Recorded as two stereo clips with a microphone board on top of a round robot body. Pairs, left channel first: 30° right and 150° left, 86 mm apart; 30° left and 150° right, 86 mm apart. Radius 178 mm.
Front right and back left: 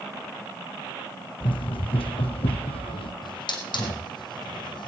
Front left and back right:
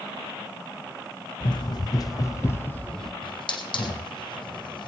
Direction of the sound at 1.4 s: 5° right.